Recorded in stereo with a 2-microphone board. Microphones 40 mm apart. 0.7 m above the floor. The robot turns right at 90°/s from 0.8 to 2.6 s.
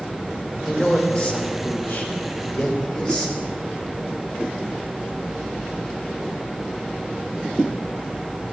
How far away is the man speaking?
About 2.5 m.